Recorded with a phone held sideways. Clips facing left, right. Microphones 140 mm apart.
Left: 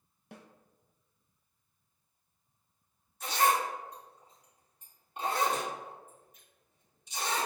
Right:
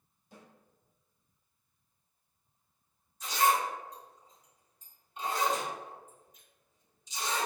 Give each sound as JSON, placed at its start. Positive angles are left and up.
{"t": 0.3, "sound": "a snare drum", "side_deg": 75, "distance_m": 0.5}
{"t": 3.2, "sound": "a zipper", "side_deg": 60, "distance_m": 1.8}